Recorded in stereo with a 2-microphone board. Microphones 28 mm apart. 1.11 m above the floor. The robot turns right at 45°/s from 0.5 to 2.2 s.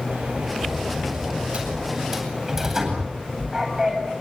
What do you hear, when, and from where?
0.1 s a sliding door: 90° right, 9 m; by 4.1 s 15° right, 9 m